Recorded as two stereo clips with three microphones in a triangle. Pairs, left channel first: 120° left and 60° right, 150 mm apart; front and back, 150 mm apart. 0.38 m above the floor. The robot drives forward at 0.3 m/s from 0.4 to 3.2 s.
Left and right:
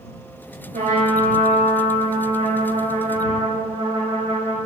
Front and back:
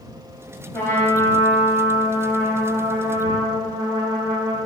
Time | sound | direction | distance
0.7 | a trumpet | 70° right | 1.1 m